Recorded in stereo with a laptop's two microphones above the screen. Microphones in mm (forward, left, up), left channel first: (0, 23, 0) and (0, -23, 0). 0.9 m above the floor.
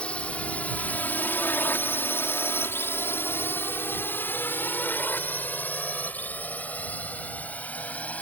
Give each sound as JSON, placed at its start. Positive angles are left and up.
{"t": 0.0, "sound": "a drone", "side_deg": 25}